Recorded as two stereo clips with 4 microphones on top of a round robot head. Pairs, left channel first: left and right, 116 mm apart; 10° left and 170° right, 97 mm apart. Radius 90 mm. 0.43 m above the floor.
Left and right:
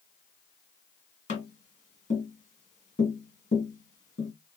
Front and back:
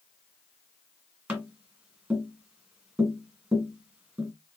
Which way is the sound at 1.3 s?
110° left.